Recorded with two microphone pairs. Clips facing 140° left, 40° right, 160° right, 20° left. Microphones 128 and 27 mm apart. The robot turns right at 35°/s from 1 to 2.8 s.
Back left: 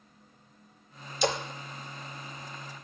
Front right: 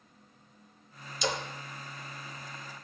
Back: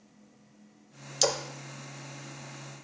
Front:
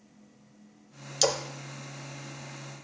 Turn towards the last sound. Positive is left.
turn(degrees=165)